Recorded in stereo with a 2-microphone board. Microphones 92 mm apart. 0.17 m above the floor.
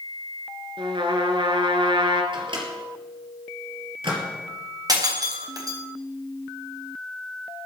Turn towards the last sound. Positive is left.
turn(degrees=-40)  # may be behind; listen again after turning